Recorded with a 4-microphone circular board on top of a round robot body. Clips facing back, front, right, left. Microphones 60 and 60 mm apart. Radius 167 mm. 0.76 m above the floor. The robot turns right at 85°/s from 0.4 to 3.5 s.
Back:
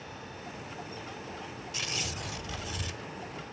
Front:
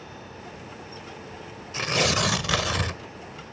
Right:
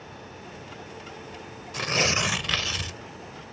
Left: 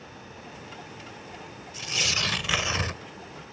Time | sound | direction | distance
1.7 | tearing paper | 55° right | ?